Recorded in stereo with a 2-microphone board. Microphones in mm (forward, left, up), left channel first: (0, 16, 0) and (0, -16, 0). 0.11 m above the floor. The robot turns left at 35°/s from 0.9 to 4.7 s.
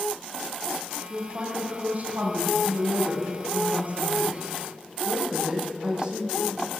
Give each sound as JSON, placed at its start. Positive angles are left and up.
{"t": 1.1, "sound": "a woman speaking", "azimuth_deg": -25, "distance_m": 5.0}